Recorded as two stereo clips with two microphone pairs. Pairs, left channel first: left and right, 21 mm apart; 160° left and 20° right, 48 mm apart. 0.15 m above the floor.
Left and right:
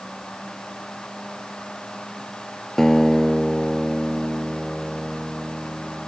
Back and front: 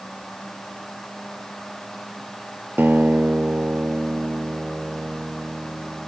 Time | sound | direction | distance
2.8 | a guitar | 20° left | ?